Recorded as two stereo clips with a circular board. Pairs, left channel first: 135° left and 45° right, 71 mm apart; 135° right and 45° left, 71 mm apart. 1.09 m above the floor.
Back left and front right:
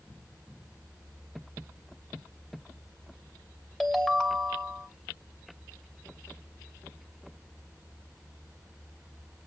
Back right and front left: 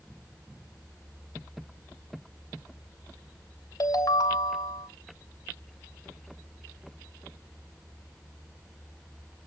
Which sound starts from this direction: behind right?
A ringtone, at 3.8 s.